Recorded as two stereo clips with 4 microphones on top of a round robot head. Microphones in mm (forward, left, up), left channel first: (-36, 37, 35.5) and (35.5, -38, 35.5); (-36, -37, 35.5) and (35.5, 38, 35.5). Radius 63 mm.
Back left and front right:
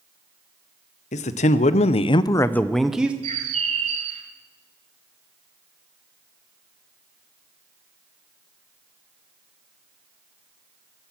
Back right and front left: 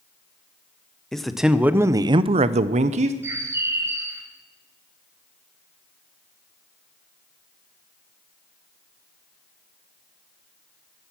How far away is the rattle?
I don't hear a rattle.